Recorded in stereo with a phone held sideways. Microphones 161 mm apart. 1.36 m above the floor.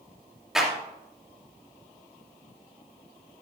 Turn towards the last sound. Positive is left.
turn(degrees=0)  # may be behind; listen again after turning